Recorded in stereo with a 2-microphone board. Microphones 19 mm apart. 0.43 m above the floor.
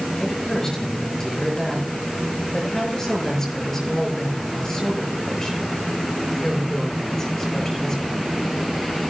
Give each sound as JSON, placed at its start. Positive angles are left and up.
{"t": 0.2, "sound": "a woman speaking", "side_deg": 20, "distance_m": 6.5}